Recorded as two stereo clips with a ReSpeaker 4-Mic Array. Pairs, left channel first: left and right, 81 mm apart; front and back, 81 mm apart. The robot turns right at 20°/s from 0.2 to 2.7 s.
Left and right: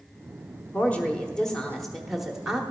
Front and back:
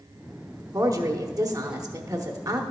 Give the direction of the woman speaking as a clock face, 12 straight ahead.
7 o'clock.